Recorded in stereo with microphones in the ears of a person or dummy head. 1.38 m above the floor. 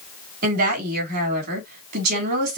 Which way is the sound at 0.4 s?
45° right (ahead or behind).